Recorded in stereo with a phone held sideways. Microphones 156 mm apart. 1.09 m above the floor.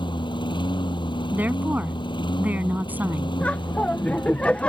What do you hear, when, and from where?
0.0 s a lawn mower: 30° left (ahead or behind)
1.3 s a woman speaking: 10° right (ahead or behind)
3.4 s laughter: 10° left (ahead or behind)